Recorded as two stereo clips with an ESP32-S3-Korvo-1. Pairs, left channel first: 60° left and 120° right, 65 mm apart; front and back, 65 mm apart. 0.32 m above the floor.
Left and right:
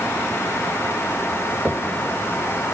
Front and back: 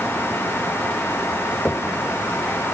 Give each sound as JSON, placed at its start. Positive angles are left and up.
{"t": 1.6, "sound": "knocking", "azimuth_deg": -60, "distance_m": 1.5}